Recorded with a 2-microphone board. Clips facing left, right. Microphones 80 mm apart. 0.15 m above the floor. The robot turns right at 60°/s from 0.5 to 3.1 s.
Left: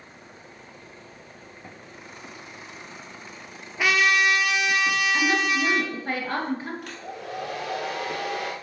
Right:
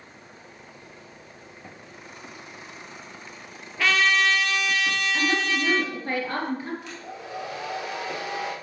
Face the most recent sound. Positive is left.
turn(degrees=55)  # may be behind; listen again after turning